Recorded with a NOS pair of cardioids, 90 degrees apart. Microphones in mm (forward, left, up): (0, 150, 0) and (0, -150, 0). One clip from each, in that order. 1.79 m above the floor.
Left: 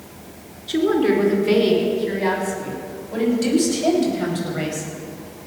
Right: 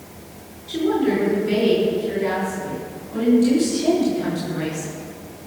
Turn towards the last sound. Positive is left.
turn(degrees=70)